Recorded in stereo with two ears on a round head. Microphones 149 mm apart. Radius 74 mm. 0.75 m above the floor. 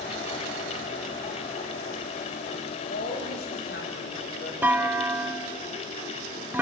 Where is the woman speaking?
65° left (ahead or behind), 4 m.